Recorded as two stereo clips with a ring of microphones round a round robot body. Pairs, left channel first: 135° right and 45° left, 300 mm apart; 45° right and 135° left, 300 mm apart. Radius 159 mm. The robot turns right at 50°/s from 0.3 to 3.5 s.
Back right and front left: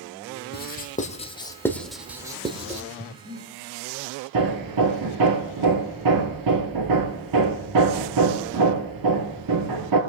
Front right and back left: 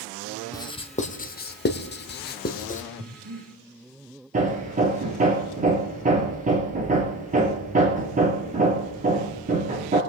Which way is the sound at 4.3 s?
70° left.